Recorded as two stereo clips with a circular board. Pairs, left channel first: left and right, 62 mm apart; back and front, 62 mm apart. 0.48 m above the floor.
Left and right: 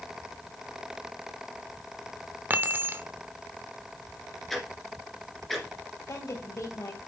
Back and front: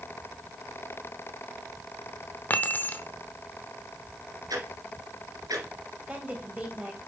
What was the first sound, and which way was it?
Keys jangling, 130° right.